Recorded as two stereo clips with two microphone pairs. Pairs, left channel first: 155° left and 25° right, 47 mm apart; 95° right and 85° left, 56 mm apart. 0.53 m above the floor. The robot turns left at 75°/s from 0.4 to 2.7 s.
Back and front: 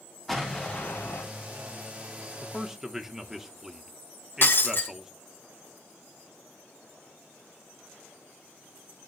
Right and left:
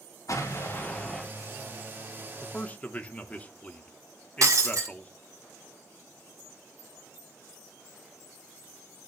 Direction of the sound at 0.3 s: 120° right.